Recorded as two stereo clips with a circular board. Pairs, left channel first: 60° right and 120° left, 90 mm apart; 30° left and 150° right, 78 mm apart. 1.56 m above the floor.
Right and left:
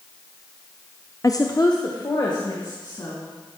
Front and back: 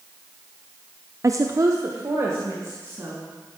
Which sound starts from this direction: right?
A woman speaking, at 1.2 s.